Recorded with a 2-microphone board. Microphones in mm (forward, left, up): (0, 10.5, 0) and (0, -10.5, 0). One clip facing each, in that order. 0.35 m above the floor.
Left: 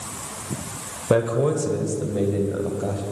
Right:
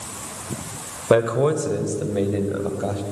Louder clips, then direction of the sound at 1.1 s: Right 2 dB; 25° right (ahead or behind).